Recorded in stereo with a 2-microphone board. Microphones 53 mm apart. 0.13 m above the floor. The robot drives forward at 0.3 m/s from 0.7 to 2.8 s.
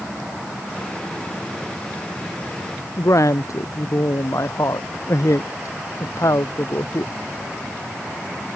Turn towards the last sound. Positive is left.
turn(degrees=75)  # may be behind; listen again after turning